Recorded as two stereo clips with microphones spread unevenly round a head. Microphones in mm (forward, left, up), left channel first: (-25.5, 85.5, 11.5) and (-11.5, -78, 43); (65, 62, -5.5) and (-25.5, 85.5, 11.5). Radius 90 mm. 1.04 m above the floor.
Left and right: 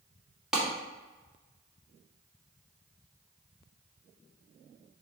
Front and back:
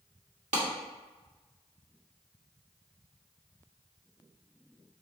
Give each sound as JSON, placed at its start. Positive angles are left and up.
{"t": 0.5, "sound": "a clap", "azimuth_deg": -175, "distance_m": 1.9}